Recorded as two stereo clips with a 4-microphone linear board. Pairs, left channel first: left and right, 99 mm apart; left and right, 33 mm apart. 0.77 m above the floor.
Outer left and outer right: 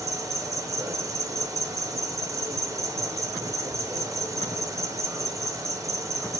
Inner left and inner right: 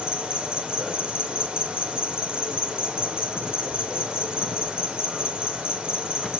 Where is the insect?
35° right (ahead or behind), 0.7 m.